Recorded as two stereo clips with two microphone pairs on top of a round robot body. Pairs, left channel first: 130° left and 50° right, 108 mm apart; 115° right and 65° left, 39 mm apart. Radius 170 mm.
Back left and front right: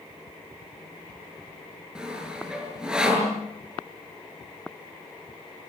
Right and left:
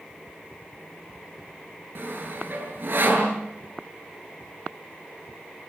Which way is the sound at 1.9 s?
35° left.